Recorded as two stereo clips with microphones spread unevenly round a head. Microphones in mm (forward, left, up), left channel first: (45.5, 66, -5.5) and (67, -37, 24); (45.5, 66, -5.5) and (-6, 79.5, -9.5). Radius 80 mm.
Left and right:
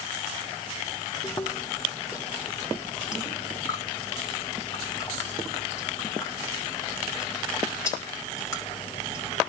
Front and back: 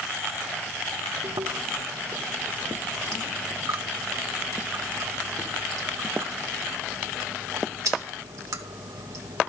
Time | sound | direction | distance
1.2 | chewing | straight behind | 2.5 m